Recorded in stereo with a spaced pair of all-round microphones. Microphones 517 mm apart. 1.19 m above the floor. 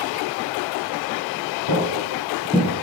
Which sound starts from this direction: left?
Footsteps, at 1.7 s.